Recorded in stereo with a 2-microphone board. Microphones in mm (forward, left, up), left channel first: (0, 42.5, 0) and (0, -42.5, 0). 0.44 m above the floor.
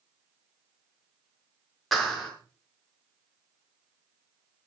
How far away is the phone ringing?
No phone ringing in this recording.